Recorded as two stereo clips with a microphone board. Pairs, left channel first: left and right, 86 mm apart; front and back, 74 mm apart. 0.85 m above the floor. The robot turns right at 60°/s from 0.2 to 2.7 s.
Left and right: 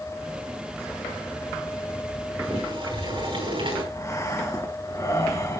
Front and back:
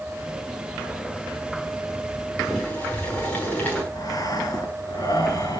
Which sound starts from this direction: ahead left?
Breathing, at 3.9 s.